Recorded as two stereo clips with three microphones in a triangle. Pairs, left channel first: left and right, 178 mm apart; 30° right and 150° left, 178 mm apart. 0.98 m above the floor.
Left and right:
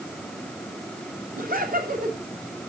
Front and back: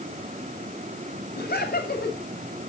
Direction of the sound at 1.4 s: 55° right.